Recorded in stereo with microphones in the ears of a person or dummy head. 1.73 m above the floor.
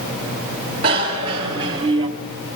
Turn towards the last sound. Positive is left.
turn(degrees=-30)  # may be behind; listen again after turning